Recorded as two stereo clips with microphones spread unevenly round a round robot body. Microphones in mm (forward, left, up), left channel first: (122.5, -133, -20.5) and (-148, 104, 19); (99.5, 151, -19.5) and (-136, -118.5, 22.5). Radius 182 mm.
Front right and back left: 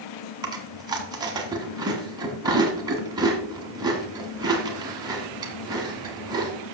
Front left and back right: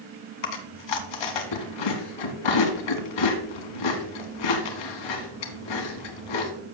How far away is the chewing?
About 1.6 m.